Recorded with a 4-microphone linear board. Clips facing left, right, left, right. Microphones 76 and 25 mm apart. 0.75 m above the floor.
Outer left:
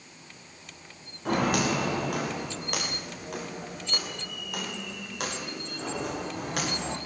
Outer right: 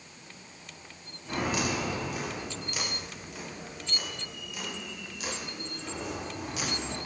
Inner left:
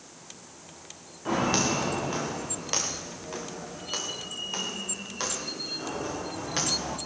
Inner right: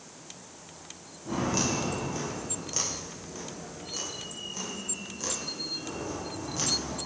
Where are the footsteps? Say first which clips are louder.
Outer left 5 dB, inner left 4 dB; 65° left (ahead or behind), 7 m; by 7.0 s 60° left (ahead or behind), 11 m.